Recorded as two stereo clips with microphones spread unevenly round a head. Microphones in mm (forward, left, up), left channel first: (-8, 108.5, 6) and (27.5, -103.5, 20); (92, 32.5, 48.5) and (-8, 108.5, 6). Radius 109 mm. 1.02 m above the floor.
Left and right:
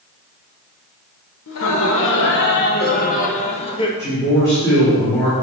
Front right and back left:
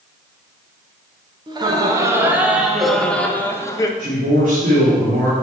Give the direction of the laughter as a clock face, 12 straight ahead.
9 o'clock.